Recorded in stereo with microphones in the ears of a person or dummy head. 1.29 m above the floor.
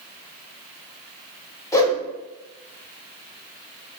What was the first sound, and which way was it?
A whoosh, 20° left (ahead or behind).